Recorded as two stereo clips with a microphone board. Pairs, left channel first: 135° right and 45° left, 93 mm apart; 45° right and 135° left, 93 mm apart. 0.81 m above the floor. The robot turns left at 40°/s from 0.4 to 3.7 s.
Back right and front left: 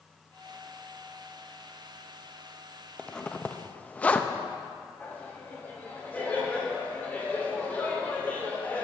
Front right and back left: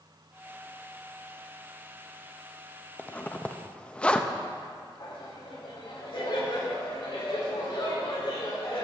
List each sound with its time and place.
3.0 s a zipper: 70° right, 0.5 m; by 4.3 s 100° right, 0.5 m
5.0 s laughter: 65° right, 4 m